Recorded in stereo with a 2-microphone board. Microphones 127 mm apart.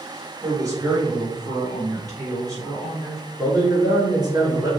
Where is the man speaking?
35° right (ahead or behind), 1.4 m.